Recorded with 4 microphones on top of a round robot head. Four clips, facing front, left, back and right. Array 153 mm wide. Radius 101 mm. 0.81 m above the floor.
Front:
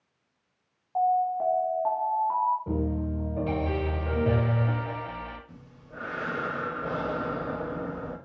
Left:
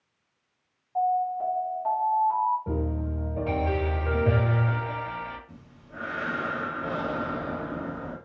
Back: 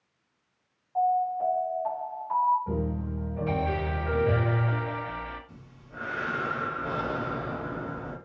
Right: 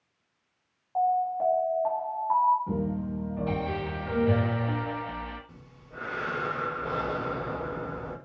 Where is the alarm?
35° right, 1.4 m.